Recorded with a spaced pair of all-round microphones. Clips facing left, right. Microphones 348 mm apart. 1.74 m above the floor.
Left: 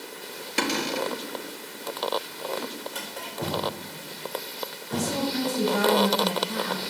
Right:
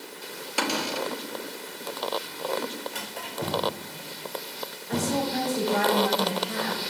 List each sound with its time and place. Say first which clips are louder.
0.6 s a cupboard door: left 2 dB; 30° left (ahead or behind), 1.3 m
2.9 s a drawer: even; 35° right (ahead or behind), 6.5 m
4.9 s a woman speaking: right 1 dB; 70° right (ahead or behind), 7 m